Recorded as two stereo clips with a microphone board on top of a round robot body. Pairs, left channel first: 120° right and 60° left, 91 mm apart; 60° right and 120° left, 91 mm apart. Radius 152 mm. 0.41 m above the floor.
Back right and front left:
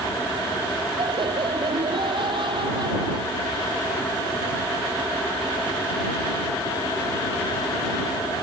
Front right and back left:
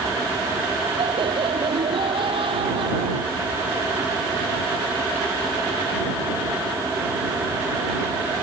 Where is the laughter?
90° left; by 3.8 s 95° left.